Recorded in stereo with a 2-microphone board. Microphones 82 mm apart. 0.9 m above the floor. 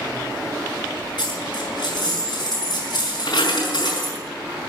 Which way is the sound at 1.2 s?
60° left (ahead or behind).